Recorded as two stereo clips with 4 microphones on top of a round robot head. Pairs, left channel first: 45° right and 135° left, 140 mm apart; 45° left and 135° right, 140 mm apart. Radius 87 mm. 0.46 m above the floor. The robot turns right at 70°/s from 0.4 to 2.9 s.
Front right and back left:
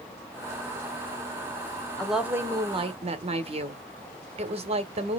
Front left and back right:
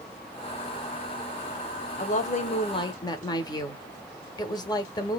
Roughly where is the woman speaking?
Ahead left.